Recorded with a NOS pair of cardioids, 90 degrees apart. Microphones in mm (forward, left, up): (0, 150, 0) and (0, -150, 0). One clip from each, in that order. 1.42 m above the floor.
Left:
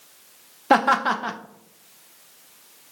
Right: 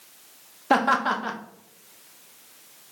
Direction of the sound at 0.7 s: 15° left.